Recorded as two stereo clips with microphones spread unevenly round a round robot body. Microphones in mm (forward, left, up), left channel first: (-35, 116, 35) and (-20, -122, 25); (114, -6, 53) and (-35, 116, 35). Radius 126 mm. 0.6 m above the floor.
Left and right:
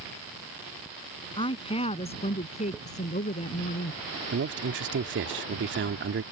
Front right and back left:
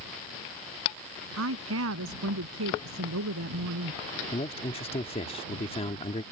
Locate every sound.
1.4 s a woman speaking: 165° left; by 4.0 s 150° left
4.3 s a man speaking: 100° right